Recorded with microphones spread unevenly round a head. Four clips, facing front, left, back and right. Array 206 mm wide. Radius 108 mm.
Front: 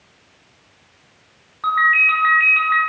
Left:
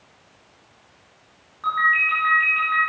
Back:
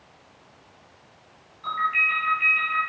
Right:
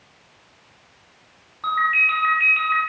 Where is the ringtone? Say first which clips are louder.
Even, front 8 dB; 20° right, 3.5 m.